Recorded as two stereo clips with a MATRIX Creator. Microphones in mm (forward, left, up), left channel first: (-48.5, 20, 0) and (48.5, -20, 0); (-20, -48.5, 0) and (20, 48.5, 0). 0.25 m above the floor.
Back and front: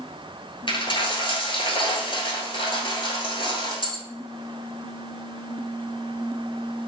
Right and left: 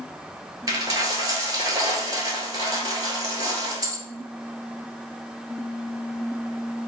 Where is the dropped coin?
120° left, 1.0 m.